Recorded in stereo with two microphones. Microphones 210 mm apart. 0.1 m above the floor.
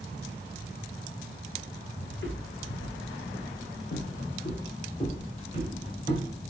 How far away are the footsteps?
About 1.8 m.